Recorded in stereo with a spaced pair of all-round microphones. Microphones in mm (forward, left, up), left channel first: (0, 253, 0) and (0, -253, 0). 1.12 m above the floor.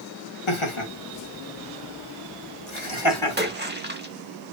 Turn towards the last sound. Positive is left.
turn(degrees=-20)  # may be behind; listen again after turning